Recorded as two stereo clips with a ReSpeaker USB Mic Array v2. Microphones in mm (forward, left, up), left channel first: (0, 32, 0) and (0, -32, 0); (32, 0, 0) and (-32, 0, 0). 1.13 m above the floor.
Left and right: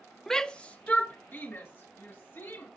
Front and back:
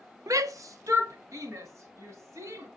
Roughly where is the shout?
Behind.